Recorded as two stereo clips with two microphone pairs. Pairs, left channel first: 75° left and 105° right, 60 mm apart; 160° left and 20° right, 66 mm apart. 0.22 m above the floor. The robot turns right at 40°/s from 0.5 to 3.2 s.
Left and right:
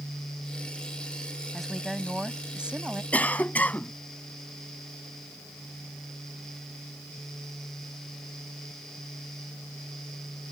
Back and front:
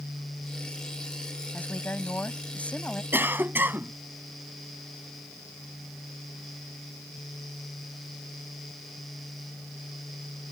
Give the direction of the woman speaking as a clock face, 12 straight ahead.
7 o'clock.